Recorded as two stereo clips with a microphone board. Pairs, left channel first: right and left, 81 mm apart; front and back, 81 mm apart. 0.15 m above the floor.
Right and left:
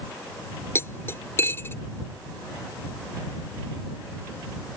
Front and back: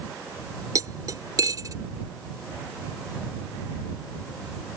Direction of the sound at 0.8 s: 145° right.